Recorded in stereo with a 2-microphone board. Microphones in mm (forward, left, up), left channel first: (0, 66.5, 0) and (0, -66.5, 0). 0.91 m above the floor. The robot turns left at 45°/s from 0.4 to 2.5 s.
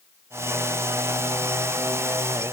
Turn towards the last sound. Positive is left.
No sound to turn to.